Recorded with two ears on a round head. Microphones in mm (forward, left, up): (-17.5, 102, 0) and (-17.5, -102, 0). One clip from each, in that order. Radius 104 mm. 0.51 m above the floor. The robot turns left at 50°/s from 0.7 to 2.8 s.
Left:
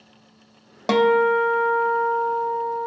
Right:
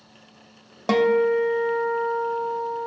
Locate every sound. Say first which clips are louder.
0.9 s a guitar: left 2 dB; 170° left, 0.5 m; by 2.9 s 75° left, 0.5 m